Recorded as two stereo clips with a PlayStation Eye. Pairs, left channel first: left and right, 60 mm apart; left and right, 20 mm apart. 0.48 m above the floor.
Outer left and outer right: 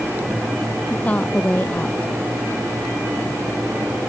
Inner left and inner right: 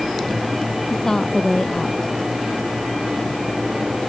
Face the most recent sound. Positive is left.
turn(degrees=25)  # may be behind; listen again after turning